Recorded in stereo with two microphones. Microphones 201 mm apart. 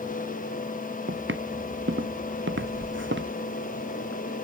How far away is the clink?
I don't hear a clink.